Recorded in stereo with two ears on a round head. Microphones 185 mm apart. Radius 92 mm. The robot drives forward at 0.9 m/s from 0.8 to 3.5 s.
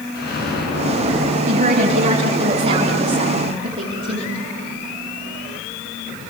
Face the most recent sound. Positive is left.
turn(degrees=-30)  # may be behind; listen again after turning